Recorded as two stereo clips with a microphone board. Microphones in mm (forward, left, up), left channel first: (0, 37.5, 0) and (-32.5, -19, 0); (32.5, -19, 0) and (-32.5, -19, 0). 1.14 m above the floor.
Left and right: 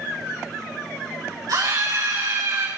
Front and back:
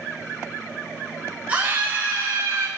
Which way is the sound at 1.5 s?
115° right.